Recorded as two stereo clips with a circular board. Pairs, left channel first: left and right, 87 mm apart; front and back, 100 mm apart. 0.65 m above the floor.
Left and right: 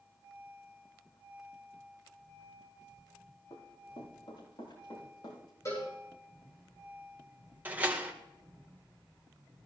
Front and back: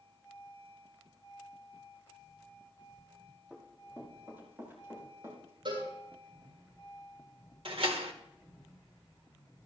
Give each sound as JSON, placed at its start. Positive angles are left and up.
{"t": 3.5, "sound": "running footsteps", "azimuth_deg": 105, "distance_m": 9.5}
{"t": 5.7, "sound": "a cowbell", "azimuth_deg": 145, "distance_m": 8.0}
{"t": 7.7, "sound": "a door slam", "azimuth_deg": -160, "distance_m": 1.5}